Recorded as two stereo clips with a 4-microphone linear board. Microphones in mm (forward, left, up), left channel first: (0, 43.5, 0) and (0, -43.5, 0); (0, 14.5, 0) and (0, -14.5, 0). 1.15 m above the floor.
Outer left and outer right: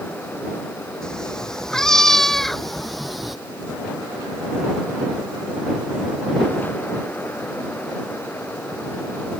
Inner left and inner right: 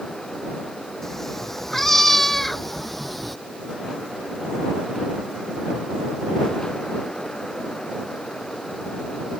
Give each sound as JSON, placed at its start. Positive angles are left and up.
{"t": 1.0, "sound": "a cat meowing", "side_deg": 10}